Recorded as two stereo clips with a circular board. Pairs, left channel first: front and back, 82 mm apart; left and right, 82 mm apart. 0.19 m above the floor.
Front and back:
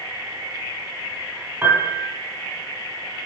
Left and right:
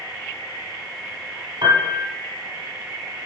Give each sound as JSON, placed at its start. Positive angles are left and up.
{"t": 1.6, "sound": "a piano", "azimuth_deg": -125, "distance_m": 2.5}